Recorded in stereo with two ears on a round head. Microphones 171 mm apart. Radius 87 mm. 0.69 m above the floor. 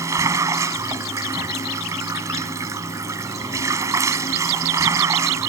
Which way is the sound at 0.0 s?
15° right (ahead or behind).